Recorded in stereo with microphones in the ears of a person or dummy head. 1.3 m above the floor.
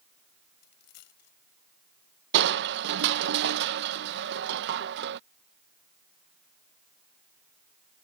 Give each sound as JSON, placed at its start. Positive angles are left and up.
{"t": 0.6, "sound": "a dropped coin", "side_deg": 55}
{"t": 2.3, "sound": "crushing", "side_deg": -55}